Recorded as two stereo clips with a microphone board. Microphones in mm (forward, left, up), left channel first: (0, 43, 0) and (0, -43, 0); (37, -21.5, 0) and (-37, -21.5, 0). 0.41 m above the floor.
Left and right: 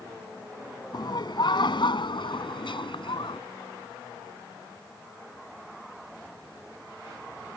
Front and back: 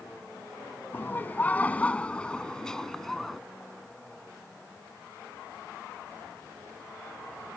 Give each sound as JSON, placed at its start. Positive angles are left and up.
{"t": 0.9, "sound": "laughter", "azimuth_deg": 60}